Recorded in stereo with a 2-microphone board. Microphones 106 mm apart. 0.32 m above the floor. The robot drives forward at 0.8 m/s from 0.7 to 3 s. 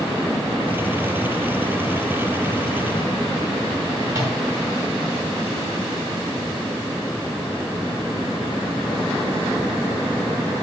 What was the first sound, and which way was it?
A microwave, 30° right (ahead or behind).